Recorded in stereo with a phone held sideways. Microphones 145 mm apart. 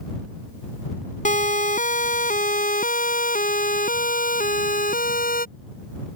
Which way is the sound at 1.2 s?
60° left (ahead or behind).